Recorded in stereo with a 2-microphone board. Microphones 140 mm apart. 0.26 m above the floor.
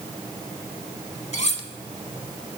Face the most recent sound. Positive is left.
turn(degrees=50)  # may be behind; listen again after turning